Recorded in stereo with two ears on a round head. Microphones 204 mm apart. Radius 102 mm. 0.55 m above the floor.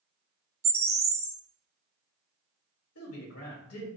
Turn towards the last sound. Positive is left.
turn(degrees=70)  # may be behind; listen again after turning